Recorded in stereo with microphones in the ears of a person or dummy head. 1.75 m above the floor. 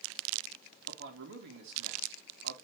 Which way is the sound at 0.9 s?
60° right (ahead or behind).